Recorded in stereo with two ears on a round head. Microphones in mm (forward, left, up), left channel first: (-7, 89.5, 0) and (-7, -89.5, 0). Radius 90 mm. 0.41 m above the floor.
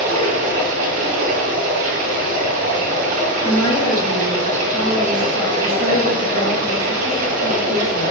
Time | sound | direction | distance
0.0 | running water | 45° right (ahead or behind) | 2 m
3.4 | a woman speaking | 25° left (ahead or behind) | 3 m